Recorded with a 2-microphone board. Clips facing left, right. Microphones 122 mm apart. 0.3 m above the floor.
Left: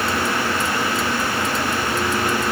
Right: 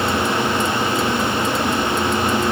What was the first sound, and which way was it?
Only background noise.